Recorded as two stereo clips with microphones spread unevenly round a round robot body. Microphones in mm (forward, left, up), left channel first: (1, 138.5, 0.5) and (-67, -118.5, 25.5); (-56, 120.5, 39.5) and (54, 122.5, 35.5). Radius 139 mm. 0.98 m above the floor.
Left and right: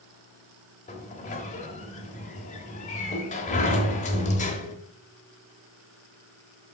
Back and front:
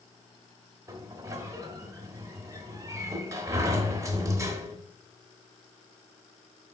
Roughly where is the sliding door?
Ahead left.